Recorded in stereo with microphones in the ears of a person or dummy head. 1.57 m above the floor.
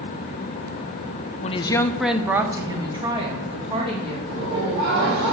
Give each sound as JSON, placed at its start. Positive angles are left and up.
{"t": 1.4, "sound": "a woman speaking", "side_deg": 35, "distance_m": 0.5}
{"t": 4.3, "sound": "laughter", "side_deg": -70, "distance_m": 4.0}